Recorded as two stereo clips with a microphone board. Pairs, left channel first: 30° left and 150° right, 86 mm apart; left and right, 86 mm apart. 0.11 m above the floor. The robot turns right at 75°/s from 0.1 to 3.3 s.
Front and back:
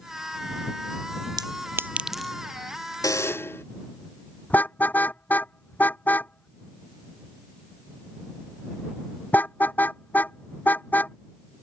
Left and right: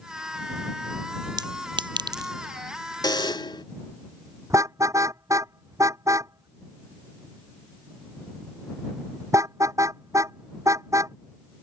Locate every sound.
1.4 s a clink: 120° right; by 2.3 s 50° right
3.0 s a buzzer: 65° left; by 3.6 s 85° left
4.5 s a car horn: 40° right